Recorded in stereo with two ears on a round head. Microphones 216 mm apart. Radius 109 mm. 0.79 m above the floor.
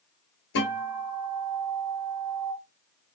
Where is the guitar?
55° left (ahead or behind), 1.2 m.